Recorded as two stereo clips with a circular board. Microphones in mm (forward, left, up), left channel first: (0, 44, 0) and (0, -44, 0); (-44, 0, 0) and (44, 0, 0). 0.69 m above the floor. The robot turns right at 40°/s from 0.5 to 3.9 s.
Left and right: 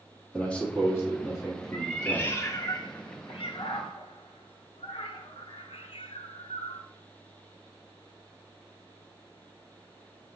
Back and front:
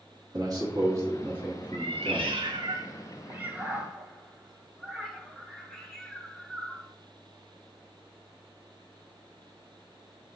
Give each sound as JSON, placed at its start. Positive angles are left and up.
{"t": 0.3, "sound": "a man speaking", "azimuth_deg": 20, "distance_m": 1.3}
{"t": 1.7, "sound": "a cat meowing", "azimuth_deg": 5, "distance_m": 0.7}